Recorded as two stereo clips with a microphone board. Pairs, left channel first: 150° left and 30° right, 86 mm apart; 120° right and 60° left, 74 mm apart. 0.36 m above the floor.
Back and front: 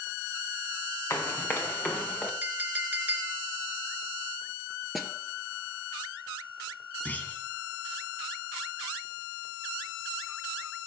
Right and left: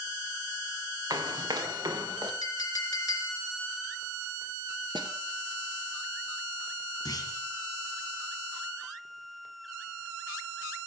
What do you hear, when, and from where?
1.1 s running footsteps: 90° left, 3 m; by 2.3 s 80° left, 3.5 m
2.4 s a clink: 100° right, 2.5 m
5.0 s a snare drum: 60° left, 1.9 m
7.0 s a clunk: 140° right, 2.5 m